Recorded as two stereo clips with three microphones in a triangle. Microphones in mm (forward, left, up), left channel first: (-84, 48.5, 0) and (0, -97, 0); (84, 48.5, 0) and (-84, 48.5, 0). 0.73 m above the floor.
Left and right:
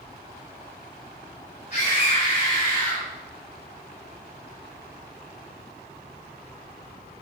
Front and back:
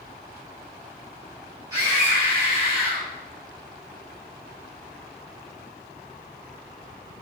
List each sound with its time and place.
1.7 s a scream: 115° left, 3.5 m; by 3.1 s 130° left, 4.5 m